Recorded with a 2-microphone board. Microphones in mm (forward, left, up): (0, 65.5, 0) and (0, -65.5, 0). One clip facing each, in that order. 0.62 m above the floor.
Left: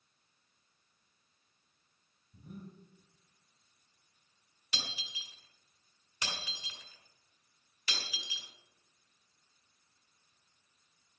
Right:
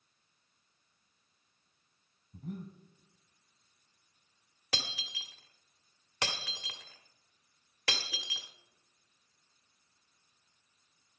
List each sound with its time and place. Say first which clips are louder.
2.3 s breathing: right 6 dB; 80° right, 2.5 m
4.7 s breaking glass: right 4 dB; 80° right, 1.4 m